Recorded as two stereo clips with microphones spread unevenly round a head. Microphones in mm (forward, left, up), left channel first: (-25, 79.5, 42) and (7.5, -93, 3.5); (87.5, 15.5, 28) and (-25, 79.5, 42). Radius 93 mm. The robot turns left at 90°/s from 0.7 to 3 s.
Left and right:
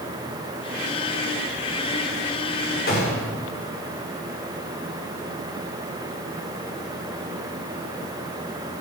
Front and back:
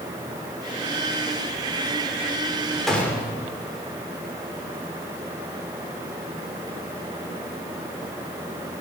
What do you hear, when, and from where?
2.9 s a gunshot: 60° left, 6 m; by 3.2 s 50° left, 6 m